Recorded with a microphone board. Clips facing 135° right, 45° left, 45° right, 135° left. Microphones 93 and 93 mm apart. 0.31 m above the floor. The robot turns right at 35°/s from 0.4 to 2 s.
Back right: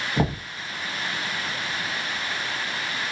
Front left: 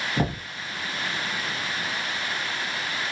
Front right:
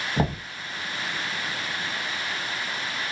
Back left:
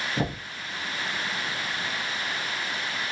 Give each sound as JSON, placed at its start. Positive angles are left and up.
{"t": 0.2, "sound": "knocking", "azimuth_deg": -65, "distance_m": 1.2}